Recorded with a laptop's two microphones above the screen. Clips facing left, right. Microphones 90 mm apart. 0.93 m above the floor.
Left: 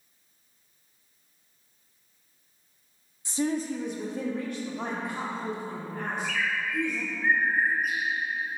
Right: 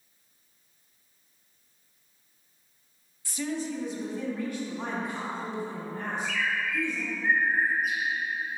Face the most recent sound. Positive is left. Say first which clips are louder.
# even
turn(degrees=65)  # may be behind; listen again after turning